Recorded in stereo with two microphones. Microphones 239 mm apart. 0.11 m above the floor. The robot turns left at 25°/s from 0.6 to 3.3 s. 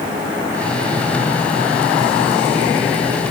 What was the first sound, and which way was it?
Only background noise.